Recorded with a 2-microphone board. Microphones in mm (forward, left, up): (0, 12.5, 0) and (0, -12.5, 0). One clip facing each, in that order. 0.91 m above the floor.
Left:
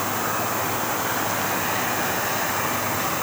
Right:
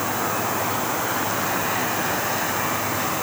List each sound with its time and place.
Only background noise.